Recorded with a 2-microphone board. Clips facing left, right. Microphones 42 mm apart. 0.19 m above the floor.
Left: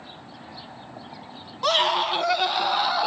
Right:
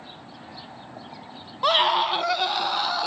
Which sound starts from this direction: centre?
A scream, at 1.6 s.